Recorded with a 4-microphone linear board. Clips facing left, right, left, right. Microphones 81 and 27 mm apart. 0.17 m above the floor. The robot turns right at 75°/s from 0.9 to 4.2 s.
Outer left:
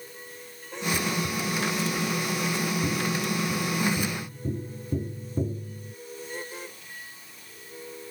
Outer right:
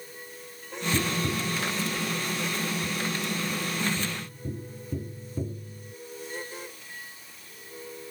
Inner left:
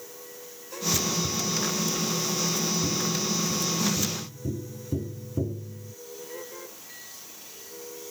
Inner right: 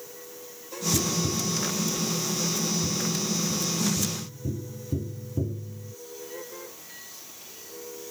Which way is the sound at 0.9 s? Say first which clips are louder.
Outer right 1 dB, inner right 1 dB; 80° right.